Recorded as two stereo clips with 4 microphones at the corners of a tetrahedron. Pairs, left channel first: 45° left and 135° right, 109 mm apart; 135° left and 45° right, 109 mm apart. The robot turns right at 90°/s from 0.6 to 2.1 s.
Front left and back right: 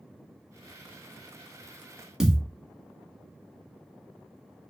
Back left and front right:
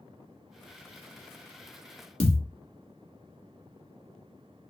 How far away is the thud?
About 0.6 m.